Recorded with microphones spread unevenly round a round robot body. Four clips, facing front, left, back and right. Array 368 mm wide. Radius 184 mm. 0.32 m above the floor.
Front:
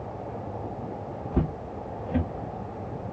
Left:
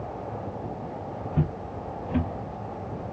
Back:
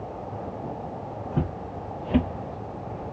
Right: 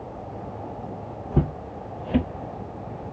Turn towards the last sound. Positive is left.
turn(degrees=175)